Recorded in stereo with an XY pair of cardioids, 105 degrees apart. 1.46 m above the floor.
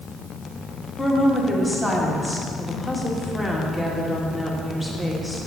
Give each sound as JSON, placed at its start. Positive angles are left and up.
{"t": 1.0, "sound": "a woman speaking", "azimuth_deg": 15, "distance_m": 1.9}